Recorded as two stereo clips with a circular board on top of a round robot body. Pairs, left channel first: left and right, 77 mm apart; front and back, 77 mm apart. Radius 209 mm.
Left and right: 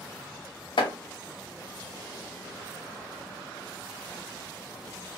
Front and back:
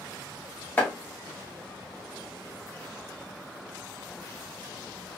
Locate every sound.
0.8 s chopping: 70° left, 0.8 m